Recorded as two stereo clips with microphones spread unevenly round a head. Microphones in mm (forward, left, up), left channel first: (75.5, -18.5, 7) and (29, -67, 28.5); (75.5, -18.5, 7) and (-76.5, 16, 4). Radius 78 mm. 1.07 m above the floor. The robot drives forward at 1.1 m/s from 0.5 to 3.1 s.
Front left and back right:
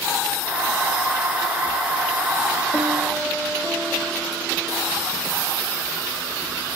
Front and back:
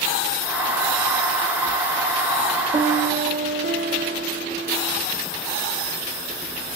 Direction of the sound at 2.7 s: 155° left.